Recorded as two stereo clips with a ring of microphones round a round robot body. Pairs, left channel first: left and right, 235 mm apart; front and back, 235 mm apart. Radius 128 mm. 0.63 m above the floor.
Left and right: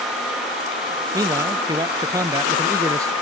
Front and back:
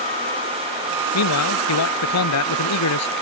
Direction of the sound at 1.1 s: 10° right.